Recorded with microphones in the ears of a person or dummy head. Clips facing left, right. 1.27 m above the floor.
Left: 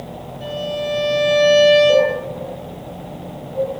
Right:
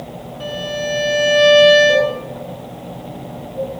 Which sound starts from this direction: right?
A violin, at 0.4 s.